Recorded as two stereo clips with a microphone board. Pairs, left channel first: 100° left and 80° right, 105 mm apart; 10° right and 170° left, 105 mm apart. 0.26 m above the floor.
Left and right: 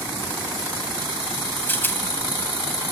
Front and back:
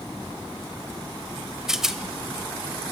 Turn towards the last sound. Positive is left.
turn(degrees=95)